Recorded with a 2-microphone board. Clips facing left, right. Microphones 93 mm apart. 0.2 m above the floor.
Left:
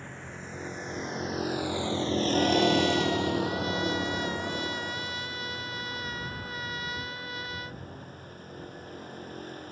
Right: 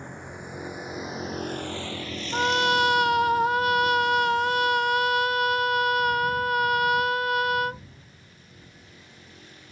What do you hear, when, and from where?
0.0 s a vehicle: 20° right (ahead or behind); by 9.7 s 45° left (ahead or behind)
2.3 s a trumpet: 65° right (ahead or behind)